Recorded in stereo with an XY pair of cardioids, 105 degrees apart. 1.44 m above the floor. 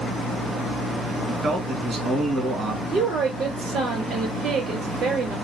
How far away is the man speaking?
About 1.7 m.